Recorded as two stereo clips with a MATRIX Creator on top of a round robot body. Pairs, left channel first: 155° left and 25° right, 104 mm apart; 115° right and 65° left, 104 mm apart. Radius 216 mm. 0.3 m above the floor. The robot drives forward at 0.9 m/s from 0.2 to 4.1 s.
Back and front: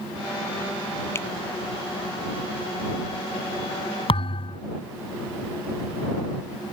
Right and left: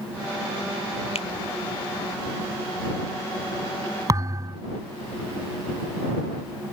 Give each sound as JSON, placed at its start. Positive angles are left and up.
{"t": 1.1, "sound": "a finger snap", "azimuth_deg": -135}
{"t": 4.1, "sound": "a thud", "azimuth_deg": 125}